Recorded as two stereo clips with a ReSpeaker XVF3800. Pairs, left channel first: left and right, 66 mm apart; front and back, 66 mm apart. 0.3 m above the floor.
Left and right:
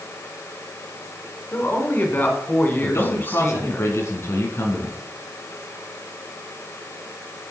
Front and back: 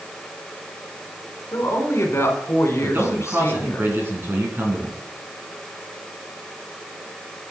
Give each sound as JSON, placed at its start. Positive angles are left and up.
{"t": 1.5, "sound": "a woman speaking", "azimuth_deg": 35, "distance_m": 2.5}
{"t": 2.8, "sound": "a man speaking", "azimuth_deg": 130, "distance_m": 3.0}